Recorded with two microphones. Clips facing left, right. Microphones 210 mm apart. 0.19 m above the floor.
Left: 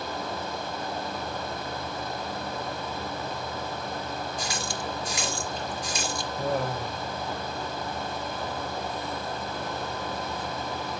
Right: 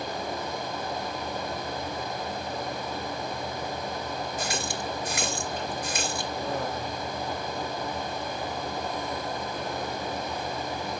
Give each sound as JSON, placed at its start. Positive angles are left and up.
{"t": 4.4, "sound": "a running tap", "side_deg": -60, "distance_m": 2.5}
{"t": 6.4, "sound": "laughter", "side_deg": 70, "distance_m": 5.0}